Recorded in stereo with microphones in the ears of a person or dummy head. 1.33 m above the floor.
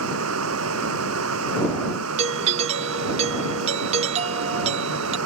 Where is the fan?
75° right (ahead or behind).